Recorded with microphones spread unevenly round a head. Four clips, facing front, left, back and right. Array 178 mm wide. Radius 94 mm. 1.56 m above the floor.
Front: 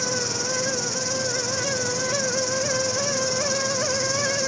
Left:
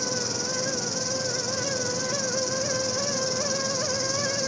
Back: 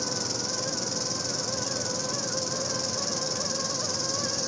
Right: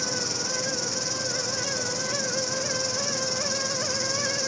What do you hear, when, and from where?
0.0 s an insect: 125° left, 2 m